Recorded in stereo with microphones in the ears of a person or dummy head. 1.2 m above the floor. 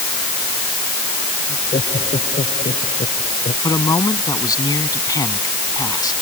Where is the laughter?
25° left (ahead or behind); by 3.5 s 30° left (ahead or behind).